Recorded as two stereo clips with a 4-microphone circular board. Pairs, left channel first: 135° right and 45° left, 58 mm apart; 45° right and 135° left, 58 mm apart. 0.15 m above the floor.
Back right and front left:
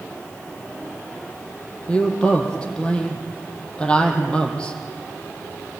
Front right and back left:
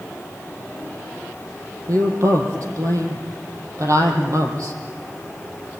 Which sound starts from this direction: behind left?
A woman speaking, at 1.9 s.